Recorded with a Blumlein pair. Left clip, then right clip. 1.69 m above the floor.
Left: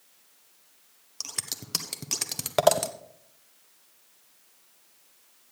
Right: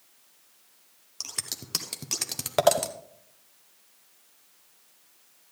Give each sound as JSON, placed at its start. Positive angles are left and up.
{"t": 1.2, "sound": "scissors", "azimuth_deg": 5, "distance_m": 0.7}